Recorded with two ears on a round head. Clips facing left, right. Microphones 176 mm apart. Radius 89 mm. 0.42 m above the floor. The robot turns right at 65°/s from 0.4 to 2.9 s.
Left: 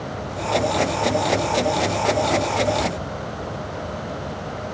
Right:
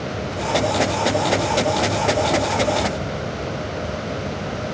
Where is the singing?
I don't hear singing.